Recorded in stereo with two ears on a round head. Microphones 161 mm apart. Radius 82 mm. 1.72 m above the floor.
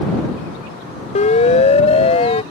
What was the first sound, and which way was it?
A siren, 40° left (ahead or behind).